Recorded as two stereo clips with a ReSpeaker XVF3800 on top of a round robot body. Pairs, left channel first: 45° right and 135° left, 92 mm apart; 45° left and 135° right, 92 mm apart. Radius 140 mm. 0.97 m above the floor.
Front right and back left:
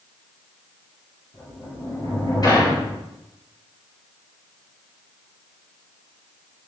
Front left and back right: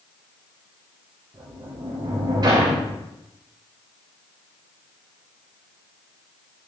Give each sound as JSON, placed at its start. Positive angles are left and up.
{"t": 1.3, "sound": "a sliding door", "azimuth_deg": -90, "distance_m": 3.0}